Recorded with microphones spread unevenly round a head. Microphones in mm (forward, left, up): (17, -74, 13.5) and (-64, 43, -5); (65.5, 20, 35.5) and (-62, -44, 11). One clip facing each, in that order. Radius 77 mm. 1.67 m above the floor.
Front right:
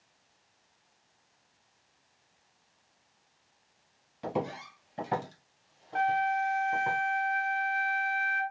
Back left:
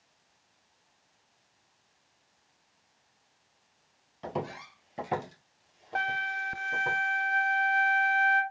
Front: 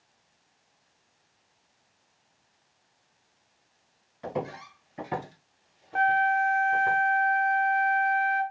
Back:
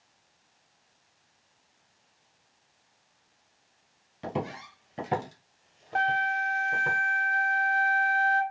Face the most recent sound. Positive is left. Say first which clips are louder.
# front right 7 dB, front 5 dB
turn(degrees=150)